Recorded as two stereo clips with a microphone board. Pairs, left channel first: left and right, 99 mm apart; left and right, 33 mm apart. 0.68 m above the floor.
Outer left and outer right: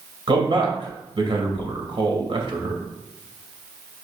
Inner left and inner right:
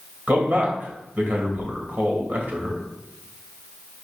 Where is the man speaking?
55° right (ahead or behind), 2.5 m.